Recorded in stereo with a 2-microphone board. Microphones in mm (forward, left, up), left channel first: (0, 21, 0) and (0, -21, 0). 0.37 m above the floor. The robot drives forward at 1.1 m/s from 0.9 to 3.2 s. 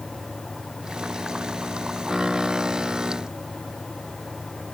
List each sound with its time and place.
Only background noise.